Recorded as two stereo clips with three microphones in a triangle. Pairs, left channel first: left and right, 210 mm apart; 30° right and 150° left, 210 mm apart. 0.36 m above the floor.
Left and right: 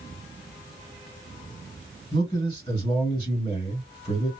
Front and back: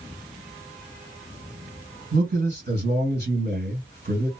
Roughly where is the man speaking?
Behind left.